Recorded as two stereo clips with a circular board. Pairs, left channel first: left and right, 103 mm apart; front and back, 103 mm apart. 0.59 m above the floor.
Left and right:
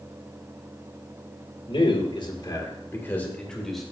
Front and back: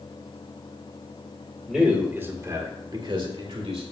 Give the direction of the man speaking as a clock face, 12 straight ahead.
9 o'clock.